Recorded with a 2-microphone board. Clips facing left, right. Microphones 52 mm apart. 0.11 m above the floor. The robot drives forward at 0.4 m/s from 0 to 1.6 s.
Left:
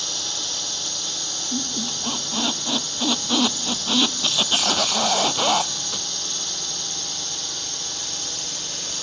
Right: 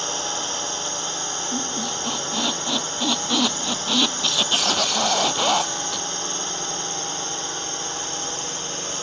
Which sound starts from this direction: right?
A drone, at 0.0 s.